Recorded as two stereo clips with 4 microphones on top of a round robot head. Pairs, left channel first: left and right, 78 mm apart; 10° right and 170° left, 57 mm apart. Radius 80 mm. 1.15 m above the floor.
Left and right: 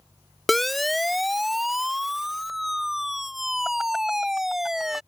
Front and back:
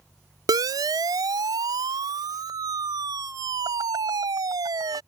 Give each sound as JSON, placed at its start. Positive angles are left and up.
{"t": 0.5, "sound": "a siren", "azimuth_deg": 180}